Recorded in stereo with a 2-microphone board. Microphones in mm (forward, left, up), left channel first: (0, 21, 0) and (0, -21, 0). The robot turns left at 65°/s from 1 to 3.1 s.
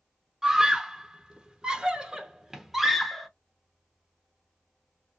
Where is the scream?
15° right (ahead or behind), 0.8 m; by 3.3 s centre (ahead or behind), 0.8 m.